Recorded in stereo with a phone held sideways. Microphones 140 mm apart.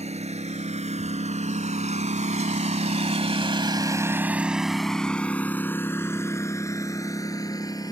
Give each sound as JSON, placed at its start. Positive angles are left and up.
{"t": 0.0, "sound": "a lawn mower", "side_deg": -50}